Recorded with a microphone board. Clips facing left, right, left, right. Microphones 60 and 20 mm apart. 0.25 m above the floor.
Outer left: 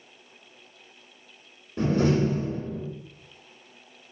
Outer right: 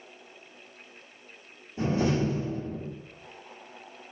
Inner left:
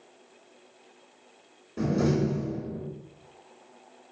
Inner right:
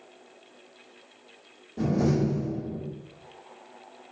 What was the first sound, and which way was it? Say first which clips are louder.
A door slam: outer left 3 dB, inner right 1 dB; 65° left (ahead or behind).